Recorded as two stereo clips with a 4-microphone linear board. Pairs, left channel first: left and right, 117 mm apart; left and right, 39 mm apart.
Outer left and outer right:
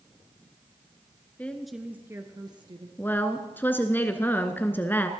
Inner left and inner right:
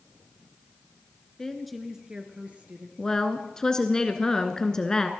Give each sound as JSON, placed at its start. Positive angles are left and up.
{"t": 1.4, "sound": "a woman speaking", "side_deg": 15, "distance_m": 1.2}
{"t": 3.0, "sound": "a woman speaking", "side_deg": 15, "distance_m": 1.1}